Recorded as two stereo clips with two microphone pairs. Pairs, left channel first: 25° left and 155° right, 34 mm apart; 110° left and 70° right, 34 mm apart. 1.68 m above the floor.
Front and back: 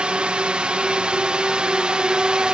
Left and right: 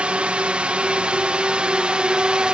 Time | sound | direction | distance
0.0 | a drone | 110° right | ?